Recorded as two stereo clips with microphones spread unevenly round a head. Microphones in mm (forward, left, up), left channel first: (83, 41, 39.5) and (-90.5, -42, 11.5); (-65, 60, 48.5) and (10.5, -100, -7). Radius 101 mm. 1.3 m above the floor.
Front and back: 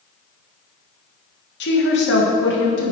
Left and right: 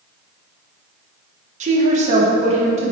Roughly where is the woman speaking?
Ahead.